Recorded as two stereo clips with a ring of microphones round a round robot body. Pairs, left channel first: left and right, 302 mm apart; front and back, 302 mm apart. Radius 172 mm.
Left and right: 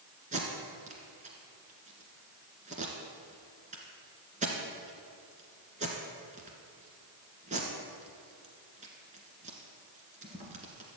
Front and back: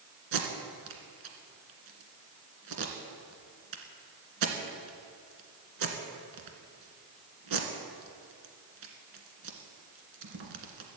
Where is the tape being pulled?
160° right, 1.9 m.